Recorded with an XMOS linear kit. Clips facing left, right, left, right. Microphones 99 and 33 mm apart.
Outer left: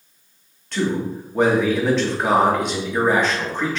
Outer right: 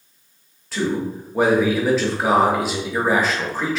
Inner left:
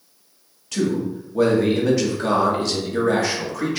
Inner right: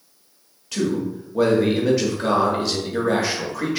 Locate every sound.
0.7 s a man speaking: 5° right (ahead or behind), 0.7 m